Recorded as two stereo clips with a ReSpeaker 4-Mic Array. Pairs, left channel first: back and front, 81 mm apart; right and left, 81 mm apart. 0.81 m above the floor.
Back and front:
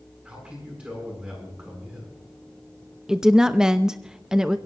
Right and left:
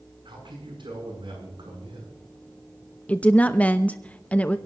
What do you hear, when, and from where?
0.2 s a man speaking: 75° left, 8.5 m
3.1 s a woman speaking: 65° right, 0.7 m